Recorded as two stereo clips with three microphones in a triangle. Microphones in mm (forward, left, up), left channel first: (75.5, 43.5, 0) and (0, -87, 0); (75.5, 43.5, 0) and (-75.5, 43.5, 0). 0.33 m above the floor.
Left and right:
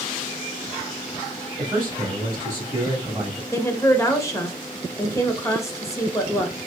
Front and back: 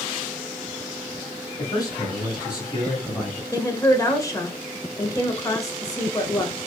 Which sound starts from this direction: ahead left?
A woman speaking, at 3.5 s.